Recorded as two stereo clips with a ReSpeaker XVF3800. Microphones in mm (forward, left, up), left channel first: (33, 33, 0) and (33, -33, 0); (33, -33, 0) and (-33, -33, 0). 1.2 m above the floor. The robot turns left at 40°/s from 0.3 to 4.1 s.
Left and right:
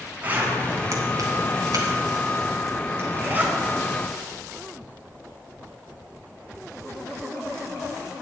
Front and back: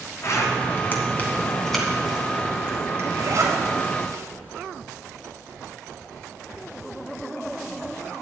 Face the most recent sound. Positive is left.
turn(degrees=180)